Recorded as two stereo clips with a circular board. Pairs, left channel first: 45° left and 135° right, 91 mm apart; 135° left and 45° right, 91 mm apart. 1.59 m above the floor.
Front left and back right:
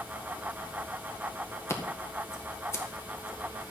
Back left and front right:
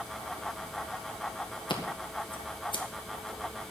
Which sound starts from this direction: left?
Scissors, at 1.7 s.